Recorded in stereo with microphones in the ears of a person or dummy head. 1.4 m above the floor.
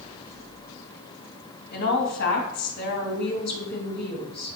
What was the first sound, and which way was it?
A woman speaking, 55° left (ahead or behind).